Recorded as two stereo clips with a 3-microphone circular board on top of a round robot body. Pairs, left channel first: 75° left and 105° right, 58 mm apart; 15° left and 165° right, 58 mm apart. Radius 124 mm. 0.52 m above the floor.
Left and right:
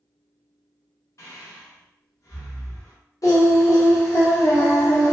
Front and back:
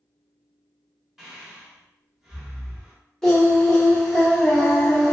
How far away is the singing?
About 1.0 m.